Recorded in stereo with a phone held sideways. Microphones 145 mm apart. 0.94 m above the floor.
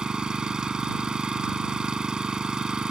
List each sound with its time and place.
0.0 s an engine running: 5° right (ahead or behind)